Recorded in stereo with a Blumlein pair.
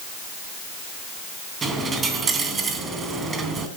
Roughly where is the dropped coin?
Ahead.